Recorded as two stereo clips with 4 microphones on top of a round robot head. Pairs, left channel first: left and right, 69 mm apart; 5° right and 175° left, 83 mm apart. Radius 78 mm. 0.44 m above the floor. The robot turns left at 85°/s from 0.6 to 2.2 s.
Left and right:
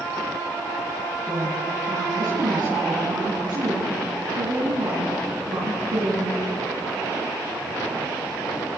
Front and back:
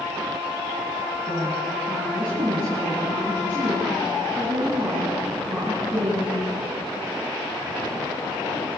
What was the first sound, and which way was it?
A woman speaking, 25° right.